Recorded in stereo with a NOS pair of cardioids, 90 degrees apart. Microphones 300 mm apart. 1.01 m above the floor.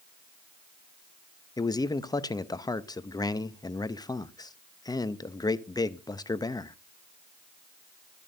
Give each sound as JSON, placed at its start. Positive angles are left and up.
{"t": 1.6, "sound": "a man speaking", "azimuth_deg": 15, "distance_m": 0.7}